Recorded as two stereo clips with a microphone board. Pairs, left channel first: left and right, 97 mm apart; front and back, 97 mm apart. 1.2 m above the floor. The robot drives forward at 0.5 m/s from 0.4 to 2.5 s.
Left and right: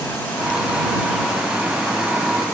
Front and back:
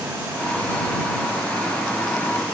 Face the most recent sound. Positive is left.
No sound to turn to.